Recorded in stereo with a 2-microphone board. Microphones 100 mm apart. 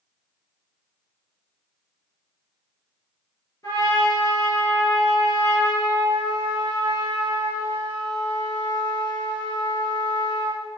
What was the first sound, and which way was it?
A trumpet, 35° left (ahead or behind).